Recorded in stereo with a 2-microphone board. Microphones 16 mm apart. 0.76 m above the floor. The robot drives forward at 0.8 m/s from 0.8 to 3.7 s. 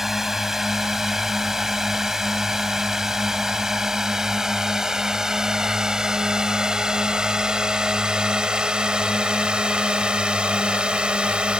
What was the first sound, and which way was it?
A drone, 20° right (ahead or behind).